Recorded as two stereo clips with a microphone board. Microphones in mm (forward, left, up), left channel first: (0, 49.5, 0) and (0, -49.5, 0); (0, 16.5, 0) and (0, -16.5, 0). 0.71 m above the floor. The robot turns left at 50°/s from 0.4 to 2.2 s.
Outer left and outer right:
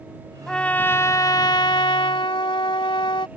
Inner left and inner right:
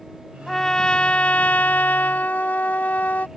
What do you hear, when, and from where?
0.5 s a trumpet: 175° left; by 3.3 s 85° left